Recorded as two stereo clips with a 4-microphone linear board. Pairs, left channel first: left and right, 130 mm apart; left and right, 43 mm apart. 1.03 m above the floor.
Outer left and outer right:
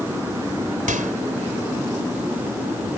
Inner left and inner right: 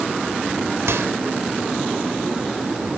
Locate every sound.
0.9 s a microwave: 85° right